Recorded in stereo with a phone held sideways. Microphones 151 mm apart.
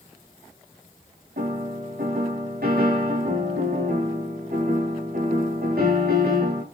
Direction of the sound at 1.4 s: 80° right.